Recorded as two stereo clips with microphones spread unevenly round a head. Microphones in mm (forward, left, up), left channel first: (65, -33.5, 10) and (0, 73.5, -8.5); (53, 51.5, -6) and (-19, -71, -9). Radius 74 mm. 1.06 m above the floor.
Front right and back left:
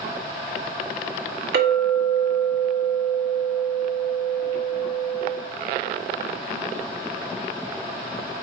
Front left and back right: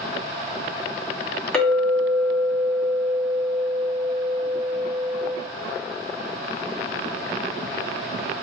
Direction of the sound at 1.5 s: 145° left.